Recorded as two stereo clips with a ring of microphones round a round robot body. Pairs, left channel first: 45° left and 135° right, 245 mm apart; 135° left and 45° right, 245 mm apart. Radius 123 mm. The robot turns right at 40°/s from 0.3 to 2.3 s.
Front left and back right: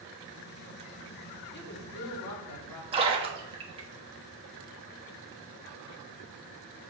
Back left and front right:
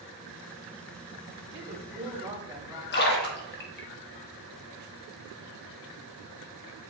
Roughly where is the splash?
Behind.